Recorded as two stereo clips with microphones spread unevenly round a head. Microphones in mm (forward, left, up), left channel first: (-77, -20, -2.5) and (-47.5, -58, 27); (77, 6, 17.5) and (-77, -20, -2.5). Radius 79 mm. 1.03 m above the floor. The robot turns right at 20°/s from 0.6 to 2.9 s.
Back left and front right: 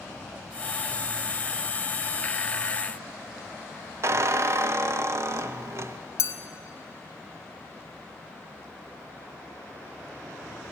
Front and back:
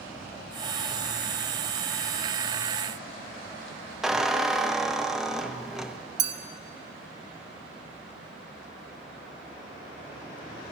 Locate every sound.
4.0 s a squeak: 85° right, 0.5 m
6.2 s a clink: 125° left, 0.7 m